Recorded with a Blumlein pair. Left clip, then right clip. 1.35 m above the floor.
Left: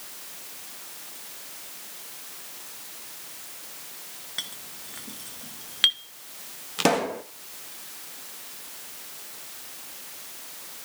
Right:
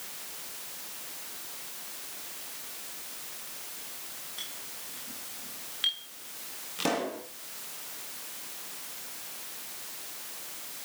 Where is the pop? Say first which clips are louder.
Left 7 dB; 65° left, 1.6 m.